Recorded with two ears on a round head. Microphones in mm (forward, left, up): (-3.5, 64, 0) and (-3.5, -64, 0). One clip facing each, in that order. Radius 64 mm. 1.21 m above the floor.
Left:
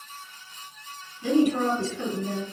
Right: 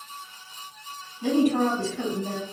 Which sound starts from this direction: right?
A woman speaking, at 1.2 s.